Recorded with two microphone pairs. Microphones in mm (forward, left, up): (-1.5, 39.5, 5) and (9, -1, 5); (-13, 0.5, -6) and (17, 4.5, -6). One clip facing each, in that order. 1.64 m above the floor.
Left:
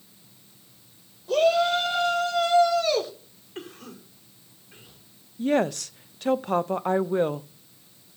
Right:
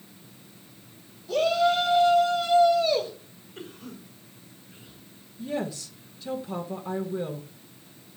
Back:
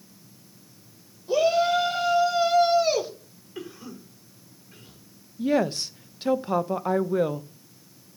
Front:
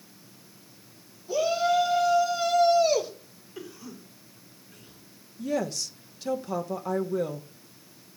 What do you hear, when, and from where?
1.3 s a shout: 145° left, 5.5 m; by 3.1 s 115° left, 4 m
3.5 s a cough: 130° left, 5 m
5.4 s a woman speaking: 135° left, 0.8 m